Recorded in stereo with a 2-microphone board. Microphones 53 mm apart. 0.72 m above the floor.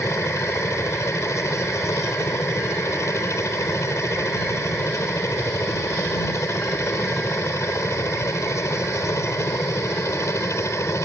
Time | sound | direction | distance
0.0 | a helicopter | 65° left (ahead or behind) | ?